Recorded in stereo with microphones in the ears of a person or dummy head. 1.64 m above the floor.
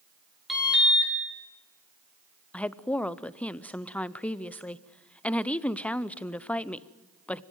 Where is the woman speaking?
5° left (ahead or behind), 0.5 m.